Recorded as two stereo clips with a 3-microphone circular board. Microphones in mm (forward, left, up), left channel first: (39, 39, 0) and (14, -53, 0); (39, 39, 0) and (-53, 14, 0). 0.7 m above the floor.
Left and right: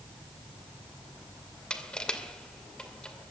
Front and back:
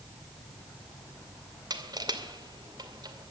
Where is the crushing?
155° left, 2 m.